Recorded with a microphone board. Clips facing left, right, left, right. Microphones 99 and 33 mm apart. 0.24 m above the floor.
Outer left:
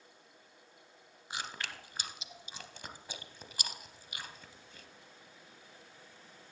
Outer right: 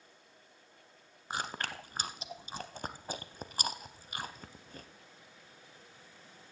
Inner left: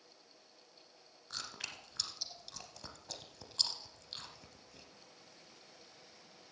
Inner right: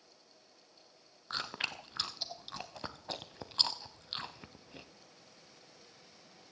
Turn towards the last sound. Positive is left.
turn(degrees=-40)  # may be behind; listen again after turning